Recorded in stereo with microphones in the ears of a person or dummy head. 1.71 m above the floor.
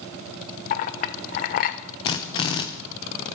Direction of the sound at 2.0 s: 30° left (ahead or behind).